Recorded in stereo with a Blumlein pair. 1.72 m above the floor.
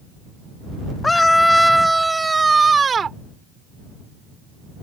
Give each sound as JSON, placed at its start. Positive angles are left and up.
{"t": 1.0, "sound": "a scream", "azimuth_deg": 10}